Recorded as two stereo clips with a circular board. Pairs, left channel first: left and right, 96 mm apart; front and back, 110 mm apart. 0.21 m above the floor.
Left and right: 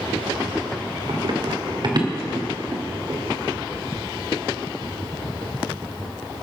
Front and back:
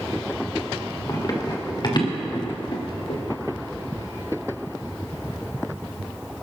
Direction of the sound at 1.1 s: 60° right.